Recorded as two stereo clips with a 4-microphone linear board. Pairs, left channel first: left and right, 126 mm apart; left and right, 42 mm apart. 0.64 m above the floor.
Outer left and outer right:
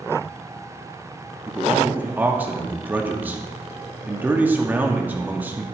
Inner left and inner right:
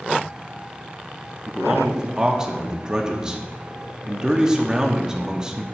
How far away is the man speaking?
About 0.9 m.